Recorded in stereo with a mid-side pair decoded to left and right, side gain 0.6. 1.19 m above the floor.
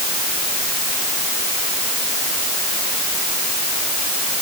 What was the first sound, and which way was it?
Only background noise.